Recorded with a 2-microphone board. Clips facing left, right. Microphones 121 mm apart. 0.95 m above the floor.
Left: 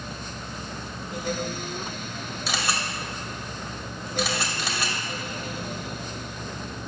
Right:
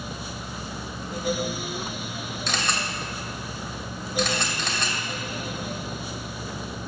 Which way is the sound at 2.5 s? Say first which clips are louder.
Even; 5° left (ahead or behind).